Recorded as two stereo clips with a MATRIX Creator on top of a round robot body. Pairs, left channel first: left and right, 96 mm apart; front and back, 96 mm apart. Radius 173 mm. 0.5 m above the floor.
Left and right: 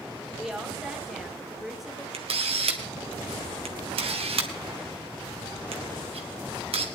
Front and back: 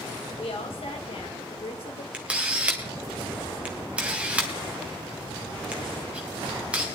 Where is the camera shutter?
100° right, 1.5 m.